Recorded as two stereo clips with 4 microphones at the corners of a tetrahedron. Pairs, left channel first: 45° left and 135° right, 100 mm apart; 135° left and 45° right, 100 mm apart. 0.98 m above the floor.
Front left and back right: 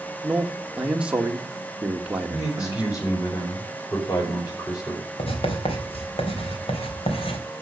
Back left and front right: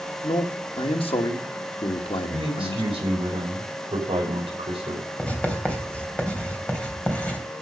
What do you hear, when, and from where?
0.2 s a man speaking: 145° left, 1.8 m
2.3 s a man speaking: 5° right, 5.5 m
5.2 s writing: 60° left, 3 m